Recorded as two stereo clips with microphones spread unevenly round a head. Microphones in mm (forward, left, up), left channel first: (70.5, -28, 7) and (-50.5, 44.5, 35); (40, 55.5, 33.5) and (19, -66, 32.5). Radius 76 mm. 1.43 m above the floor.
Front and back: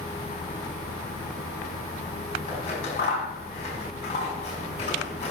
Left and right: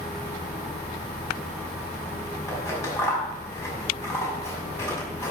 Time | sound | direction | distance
2.5 | scissors | 15° left | 5.5 m